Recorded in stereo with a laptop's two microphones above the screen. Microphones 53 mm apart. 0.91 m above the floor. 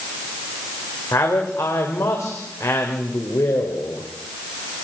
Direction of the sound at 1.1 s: 75° left (ahead or behind).